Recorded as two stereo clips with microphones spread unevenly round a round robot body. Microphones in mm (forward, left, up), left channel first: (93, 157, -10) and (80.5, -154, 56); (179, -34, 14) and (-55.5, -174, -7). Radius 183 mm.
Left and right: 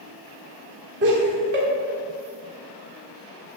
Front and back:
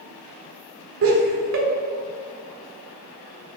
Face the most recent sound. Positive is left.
turn(degrees=-150)